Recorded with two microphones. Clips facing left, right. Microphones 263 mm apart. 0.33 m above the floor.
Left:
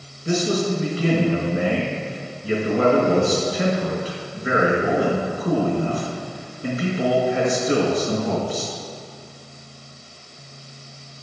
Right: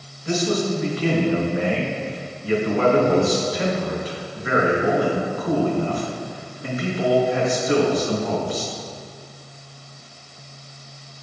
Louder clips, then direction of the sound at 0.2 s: Even; 25° left (ahead or behind).